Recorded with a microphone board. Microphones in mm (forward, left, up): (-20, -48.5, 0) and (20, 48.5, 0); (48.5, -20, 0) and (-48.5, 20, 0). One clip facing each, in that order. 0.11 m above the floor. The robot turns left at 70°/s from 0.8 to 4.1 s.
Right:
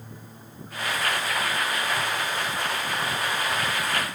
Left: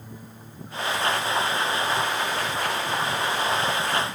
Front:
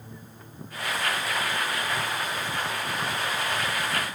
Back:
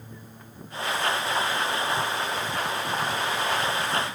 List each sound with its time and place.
Only background noise.